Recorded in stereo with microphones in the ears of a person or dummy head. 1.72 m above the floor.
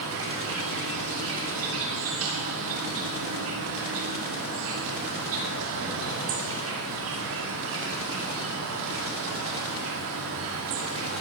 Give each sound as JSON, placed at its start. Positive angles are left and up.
{"t": 0.0, "sound": "an insect", "side_deg": -70, "distance_m": 2.5}